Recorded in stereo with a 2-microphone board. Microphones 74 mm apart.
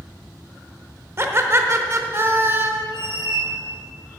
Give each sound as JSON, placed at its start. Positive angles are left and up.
{"t": 1.2, "sound": "laughter", "side_deg": -35, "distance_m": 0.9}
{"t": 2.9, "sound": "a squeak", "side_deg": 65, "distance_m": 2.5}